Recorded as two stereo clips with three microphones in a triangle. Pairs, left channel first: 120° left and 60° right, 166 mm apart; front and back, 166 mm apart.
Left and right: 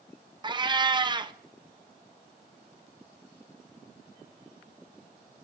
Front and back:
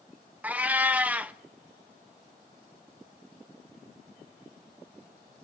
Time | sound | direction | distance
0.4 | a cat meowing | 105° right | 0.5 m